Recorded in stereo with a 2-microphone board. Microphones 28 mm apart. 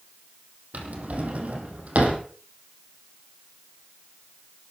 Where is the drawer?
65° right (ahead or behind), 3.5 m.